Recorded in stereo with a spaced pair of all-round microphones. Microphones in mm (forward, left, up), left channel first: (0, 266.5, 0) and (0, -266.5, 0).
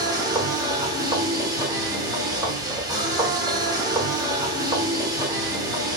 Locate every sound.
0.0 s a machine running: 10° right (ahead or behind), 1.0 m